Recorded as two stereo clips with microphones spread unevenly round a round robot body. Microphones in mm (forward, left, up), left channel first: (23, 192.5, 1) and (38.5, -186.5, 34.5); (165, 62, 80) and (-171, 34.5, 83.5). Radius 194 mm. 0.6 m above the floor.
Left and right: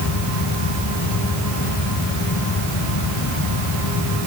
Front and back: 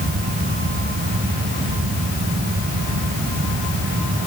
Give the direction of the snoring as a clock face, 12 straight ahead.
I don't hear snoring.